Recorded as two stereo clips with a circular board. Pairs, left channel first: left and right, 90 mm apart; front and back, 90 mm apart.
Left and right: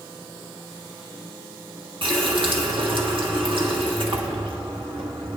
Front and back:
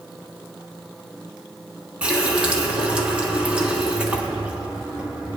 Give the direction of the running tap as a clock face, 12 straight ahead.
3 o'clock.